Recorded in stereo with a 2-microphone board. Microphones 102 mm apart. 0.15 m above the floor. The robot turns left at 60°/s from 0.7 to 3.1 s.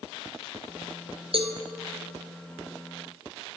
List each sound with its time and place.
1.3 s a cowbell: 60° right (ahead or behind), 0.8 m; by 1.6 s 55° right (ahead or behind), 0.8 m